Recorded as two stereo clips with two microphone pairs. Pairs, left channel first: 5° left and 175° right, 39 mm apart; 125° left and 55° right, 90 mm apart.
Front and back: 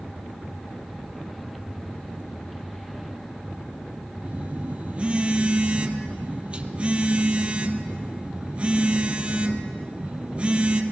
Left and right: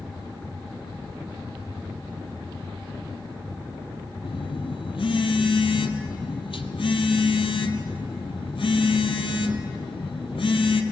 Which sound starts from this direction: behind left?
A phone buzzing, at 4.2 s.